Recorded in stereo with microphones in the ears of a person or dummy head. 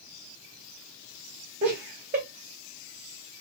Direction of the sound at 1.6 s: 25° right (ahead or behind).